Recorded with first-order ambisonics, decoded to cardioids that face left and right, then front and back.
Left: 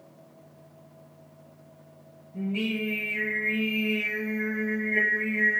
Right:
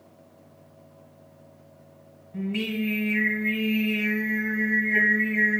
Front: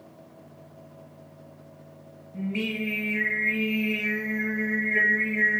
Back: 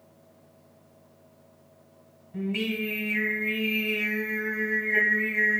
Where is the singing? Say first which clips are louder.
Even, back 1 dB; 140° right, 1.5 m.